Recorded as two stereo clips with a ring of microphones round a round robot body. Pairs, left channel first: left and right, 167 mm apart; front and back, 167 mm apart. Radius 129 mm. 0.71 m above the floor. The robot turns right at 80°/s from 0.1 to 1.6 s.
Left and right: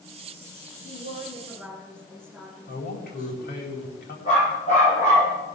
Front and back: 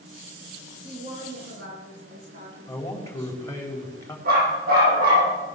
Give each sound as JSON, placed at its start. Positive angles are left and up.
{"t": 0.8, "sound": "a woman speaking", "azimuth_deg": 120, "distance_m": 9.5}
{"t": 2.7, "sound": "a man speaking", "azimuth_deg": 75, "distance_m": 4.5}
{"t": 4.2, "sound": "a dog barking", "azimuth_deg": 150, "distance_m": 9.5}